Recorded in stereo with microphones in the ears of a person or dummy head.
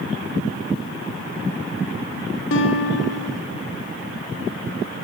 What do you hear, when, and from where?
2.5 s a guitar: 65° left (ahead or behind), 1.0 m